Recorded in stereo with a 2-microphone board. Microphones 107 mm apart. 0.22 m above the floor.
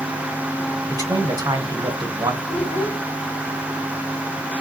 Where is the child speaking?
80° left, 4.5 m.